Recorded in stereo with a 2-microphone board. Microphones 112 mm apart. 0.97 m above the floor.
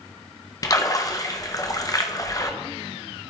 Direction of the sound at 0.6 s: 30° left (ahead or behind).